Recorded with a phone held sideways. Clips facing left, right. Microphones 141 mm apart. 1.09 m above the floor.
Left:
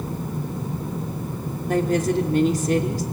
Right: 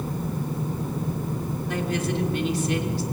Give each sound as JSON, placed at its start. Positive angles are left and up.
{"t": 1.7, "sound": "a woman speaking", "side_deg": 45, "distance_m": 3.0}